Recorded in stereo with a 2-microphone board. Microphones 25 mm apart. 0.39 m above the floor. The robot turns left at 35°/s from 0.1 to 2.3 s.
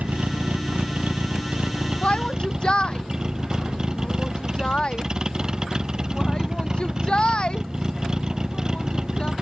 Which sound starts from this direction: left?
A shout, at 2.0 s.